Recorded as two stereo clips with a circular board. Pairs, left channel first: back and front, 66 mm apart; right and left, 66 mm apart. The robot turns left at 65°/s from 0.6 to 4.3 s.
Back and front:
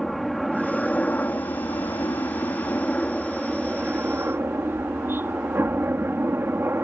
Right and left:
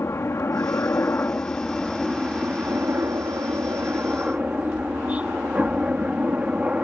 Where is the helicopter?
90° right; by 6.8 s 30° left.